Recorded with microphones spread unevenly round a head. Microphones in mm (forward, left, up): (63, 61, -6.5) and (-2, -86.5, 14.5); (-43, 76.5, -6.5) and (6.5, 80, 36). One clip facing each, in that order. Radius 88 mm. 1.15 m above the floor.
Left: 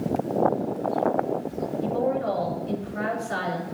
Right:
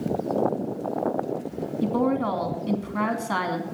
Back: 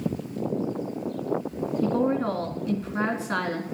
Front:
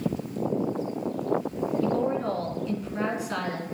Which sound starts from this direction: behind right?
A woman speaking, at 1.8 s.